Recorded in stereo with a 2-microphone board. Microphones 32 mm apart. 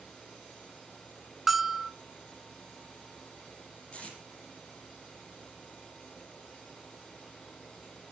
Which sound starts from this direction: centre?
A bell, at 1.5 s.